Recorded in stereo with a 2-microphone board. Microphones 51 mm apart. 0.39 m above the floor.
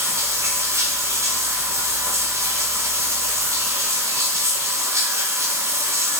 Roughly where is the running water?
Right.